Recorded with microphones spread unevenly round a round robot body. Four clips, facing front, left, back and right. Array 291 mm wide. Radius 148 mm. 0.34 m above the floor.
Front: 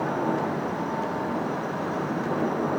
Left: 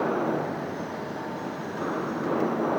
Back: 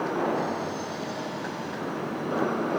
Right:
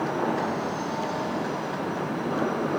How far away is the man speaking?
I don't hear a man speaking.